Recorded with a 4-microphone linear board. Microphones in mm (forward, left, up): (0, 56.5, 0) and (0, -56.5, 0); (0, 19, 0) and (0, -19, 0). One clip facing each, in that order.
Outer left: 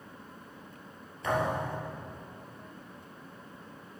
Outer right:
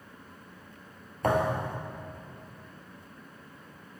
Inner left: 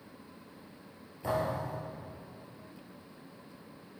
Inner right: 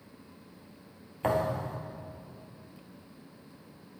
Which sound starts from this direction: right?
A thud, at 1.2 s.